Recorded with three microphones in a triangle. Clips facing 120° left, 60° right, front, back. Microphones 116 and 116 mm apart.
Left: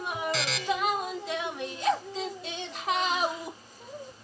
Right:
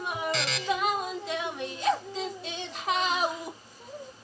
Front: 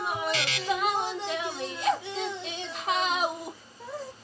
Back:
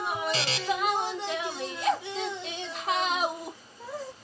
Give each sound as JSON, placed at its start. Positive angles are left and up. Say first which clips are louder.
{"t": 0.3, "sound": "a buzzer", "louder": "even, back 1 dB", "azimuth_deg": -150, "distance_m": 0.5}